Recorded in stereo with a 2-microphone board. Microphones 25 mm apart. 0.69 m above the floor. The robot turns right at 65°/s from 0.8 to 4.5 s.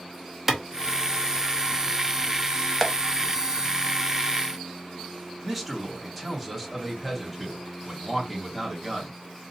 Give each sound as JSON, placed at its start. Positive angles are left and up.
{"t": 0.5, "sound": "a clap", "side_deg": -10, "distance_m": 0.8}
{"t": 2.8, "sound": "tapping", "side_deg": 0, "distance_m": 0.8}
{"t": 5.4, "sound": "a man speaking", "side_deg": -5, "distance_m": 1.7}